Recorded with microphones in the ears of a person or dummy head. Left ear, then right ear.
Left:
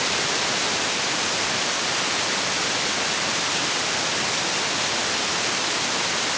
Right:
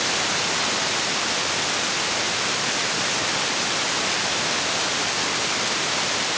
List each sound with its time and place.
Only background noise.